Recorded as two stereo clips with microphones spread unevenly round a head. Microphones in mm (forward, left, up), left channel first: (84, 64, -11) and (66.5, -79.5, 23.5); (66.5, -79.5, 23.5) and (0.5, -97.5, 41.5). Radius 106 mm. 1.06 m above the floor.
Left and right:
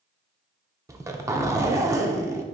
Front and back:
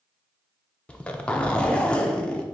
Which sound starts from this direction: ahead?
A zipper, at 0.9 s.